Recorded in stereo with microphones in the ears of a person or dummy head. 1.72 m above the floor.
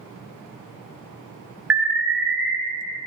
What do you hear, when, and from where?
1.7 s an alarm: 10° right (ahead or behind), 1.0 m